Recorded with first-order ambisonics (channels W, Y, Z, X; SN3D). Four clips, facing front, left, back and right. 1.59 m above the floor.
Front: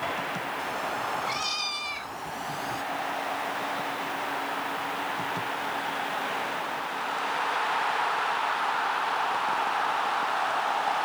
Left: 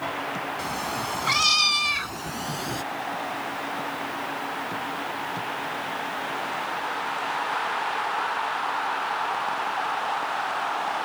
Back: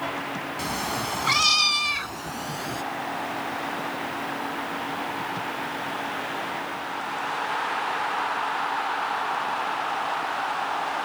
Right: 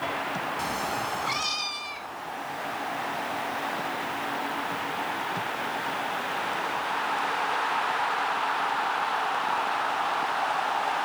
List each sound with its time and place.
0.6 s a cat meowing: straight behind; by 2.8 s 110° left